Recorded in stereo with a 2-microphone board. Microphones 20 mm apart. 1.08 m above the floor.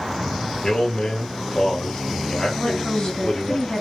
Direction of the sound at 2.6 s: 50° left (ahead or behind).